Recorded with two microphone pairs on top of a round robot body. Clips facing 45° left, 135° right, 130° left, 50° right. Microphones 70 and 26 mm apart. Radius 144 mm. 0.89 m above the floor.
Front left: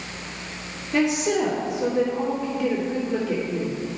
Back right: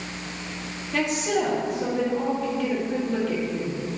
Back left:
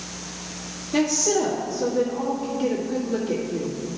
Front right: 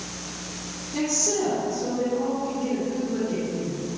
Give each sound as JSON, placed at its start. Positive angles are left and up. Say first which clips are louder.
{"t": 0.9, "sound": "a woman speaking", "louder": "front left 3 dB, back left 4 dB", "azimuth_deg": 125, "distance_m": 1.8}